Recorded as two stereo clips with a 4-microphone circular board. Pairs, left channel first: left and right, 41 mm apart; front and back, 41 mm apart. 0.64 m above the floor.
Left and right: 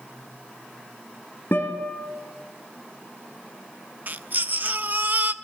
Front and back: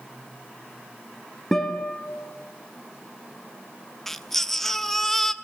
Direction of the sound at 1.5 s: 80° left.